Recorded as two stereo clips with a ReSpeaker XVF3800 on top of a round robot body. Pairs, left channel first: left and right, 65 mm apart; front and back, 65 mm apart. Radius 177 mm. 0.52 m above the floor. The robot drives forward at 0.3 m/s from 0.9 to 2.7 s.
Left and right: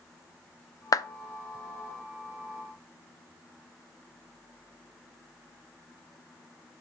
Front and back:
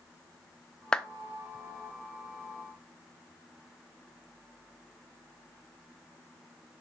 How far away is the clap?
About 0.7 m.